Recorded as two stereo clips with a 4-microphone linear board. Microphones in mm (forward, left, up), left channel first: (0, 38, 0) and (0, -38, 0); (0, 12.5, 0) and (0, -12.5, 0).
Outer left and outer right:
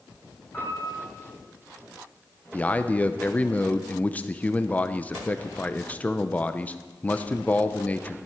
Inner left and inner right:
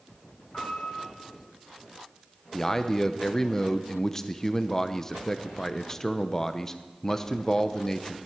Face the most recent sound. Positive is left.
turn(degrees=20)  # may be behind; listen again after turning